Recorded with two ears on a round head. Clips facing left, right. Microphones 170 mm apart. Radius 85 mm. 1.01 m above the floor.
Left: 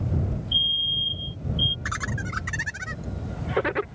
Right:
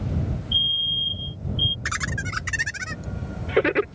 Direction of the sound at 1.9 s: 30° right (ahead or behind).